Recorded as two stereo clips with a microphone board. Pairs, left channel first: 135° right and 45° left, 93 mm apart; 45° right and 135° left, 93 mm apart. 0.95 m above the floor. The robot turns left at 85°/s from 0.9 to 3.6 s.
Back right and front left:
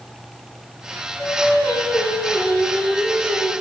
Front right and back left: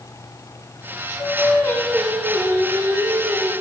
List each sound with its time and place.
1.2 s singing: 65° right, 1.1 m; by 3.5 s 95° left, 1.1 m